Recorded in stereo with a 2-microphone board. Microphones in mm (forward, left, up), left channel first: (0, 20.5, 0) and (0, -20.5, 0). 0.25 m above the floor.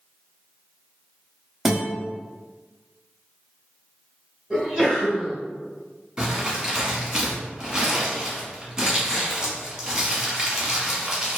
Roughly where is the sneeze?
Centre.